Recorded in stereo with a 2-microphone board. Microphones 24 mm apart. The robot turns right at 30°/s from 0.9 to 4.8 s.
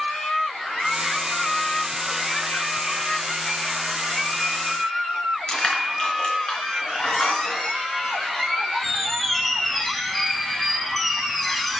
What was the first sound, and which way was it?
Crushing, 40° left (ahead or behind).